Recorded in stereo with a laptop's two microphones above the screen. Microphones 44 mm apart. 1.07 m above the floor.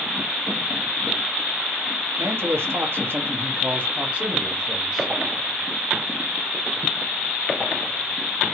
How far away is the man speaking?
About 1.5 m.